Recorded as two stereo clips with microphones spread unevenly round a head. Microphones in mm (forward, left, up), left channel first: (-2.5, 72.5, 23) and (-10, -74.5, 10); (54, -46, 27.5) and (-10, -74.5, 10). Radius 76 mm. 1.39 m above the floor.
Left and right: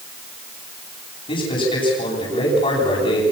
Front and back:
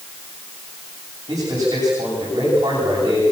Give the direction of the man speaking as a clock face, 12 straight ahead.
7 o'clock.